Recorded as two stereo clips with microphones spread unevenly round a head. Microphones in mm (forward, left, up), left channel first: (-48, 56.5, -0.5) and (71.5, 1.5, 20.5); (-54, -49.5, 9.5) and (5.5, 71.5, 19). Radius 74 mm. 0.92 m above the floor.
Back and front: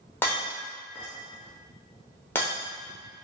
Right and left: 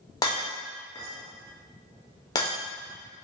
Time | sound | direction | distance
0.2 | breaking glass | 130° right | 0.6 m